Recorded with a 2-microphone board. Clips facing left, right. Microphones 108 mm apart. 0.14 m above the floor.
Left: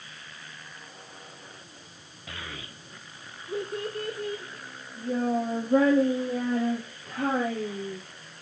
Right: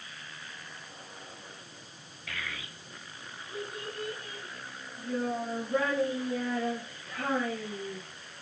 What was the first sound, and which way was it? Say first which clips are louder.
A child speaking: left 1 dB; 25° left (ahead or behind).